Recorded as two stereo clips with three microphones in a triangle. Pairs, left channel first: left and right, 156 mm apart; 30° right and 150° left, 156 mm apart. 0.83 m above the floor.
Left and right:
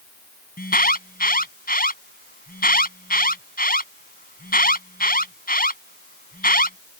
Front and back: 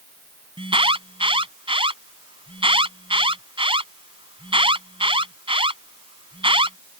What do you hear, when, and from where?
0.6 s an alarm: 95° left